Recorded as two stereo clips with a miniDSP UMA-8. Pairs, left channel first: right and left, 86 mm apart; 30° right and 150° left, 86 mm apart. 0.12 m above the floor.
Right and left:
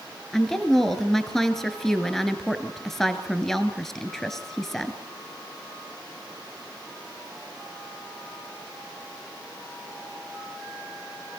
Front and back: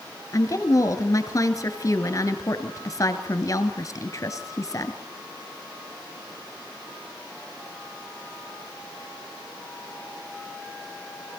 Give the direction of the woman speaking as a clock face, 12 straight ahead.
12 o'clock.